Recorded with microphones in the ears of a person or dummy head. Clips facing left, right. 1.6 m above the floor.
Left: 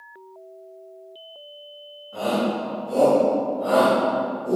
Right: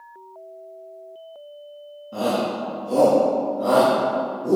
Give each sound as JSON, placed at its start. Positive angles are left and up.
{"t": 2.1, "sound": "a shout", "side_deg": -80, "distance_m": 2.5}